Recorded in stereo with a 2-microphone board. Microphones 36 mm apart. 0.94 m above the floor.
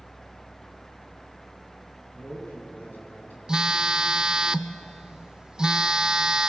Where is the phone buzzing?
25° right (ahead or behind), 0.6 m.